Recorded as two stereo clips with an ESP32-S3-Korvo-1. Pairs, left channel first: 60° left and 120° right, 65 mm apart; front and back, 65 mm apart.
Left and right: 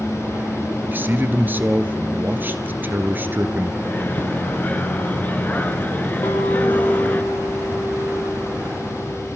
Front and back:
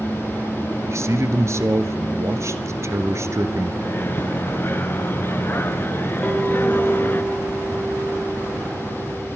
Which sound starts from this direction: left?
A clink, at 6.2 s.